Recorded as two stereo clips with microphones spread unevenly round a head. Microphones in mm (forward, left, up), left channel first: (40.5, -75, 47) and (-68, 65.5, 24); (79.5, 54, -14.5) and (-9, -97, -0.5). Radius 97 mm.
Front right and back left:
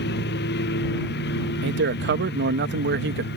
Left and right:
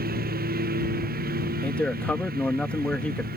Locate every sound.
0.0 s a lawn mower: 85° right
1.6 s a man speaking: 145° left